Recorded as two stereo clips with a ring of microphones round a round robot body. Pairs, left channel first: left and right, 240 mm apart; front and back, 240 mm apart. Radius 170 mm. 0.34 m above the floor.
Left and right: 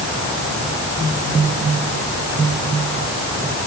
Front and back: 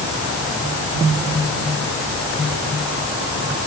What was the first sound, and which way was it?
Only background noise.